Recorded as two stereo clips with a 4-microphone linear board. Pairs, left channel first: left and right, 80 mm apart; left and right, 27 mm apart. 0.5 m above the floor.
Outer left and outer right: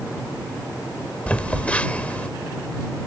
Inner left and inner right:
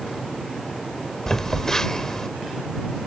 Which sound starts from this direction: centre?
A phone buzzing, at 1.3 s.